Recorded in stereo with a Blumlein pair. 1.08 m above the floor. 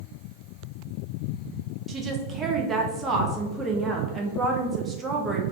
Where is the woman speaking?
20° right, 0.7 m.